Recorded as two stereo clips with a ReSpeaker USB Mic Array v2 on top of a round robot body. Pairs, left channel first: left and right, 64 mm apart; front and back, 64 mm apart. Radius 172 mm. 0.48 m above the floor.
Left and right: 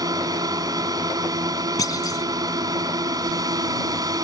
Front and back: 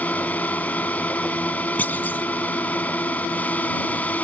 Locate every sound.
0.0 s a drone: 70° right
1.8 s a clunk: 60° left